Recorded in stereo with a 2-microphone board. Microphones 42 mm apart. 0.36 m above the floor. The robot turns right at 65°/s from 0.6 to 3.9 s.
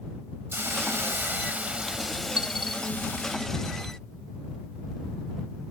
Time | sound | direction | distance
0.5 | a hiss | 105° right | ?
2.4 | a dropped coin | 25° right (ahead or behind) | ?